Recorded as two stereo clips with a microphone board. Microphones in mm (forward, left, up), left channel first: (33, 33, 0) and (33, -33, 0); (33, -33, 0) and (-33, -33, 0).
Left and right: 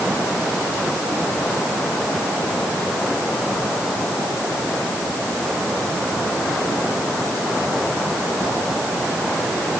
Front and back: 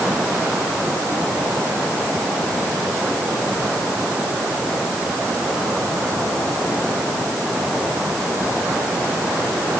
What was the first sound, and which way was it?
Only background noise.